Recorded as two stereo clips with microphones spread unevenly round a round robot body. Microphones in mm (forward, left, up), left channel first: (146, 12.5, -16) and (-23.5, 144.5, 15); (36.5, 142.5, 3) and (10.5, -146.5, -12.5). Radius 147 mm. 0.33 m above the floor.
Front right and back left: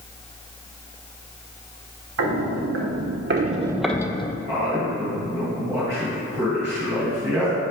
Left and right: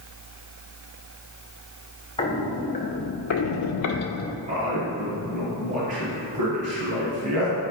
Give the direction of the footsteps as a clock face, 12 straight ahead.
7 o'clock.